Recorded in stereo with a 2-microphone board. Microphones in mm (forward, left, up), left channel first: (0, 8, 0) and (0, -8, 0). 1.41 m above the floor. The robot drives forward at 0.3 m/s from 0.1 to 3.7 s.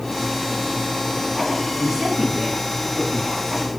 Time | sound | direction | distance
1.8 | a woman speaking | 45° right (ahead or behind) | 6.5 m